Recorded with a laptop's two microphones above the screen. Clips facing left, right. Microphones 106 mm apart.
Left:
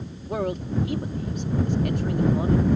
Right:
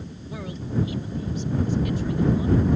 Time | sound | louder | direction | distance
0.3 | a man speaking | left 5 dB | 55° left (ahead or behind) | ?